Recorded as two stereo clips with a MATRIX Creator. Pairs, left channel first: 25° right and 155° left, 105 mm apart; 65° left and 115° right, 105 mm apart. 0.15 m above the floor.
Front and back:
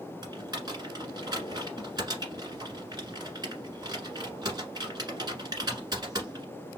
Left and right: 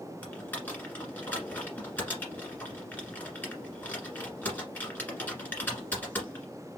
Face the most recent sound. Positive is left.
turn(degrees=130)